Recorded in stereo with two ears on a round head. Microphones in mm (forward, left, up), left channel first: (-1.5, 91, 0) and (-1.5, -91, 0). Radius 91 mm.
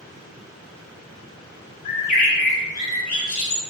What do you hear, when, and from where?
1.9 s a bird: 40° left (ahead or behind), 0.8 m